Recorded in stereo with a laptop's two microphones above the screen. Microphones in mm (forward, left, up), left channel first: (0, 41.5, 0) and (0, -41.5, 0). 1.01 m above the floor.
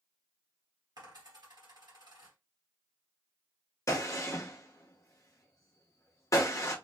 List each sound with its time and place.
1.0 s a dropped coin: 55° right (ahead or behind), 1.5 m
3.9 s a gunshot: 40° left (ahead or behind), 0.7 m